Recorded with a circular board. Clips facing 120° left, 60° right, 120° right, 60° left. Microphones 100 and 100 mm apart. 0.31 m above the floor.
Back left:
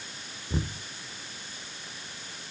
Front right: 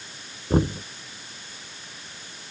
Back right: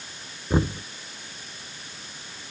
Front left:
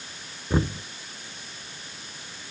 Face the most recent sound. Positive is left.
turn(degrees=-40)